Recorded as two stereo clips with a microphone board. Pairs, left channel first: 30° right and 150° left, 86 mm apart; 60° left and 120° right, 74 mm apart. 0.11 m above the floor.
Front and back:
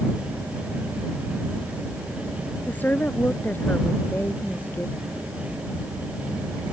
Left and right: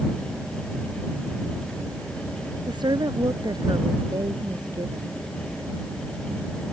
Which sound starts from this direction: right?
A woman speaking, at 2.7 s.